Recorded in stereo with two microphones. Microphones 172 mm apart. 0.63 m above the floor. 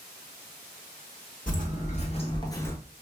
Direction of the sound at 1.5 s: 50° left (ahead or behind).